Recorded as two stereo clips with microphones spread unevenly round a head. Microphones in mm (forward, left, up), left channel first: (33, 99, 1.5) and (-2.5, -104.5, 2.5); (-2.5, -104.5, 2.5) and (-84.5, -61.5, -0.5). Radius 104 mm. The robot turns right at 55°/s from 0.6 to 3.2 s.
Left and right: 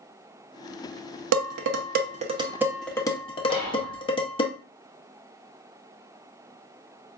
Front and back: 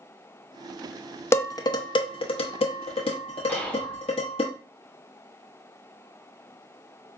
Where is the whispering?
105° right, 1.7 m.